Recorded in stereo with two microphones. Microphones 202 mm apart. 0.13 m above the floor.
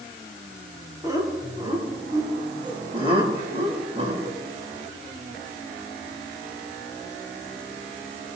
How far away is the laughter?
About 5.5 m.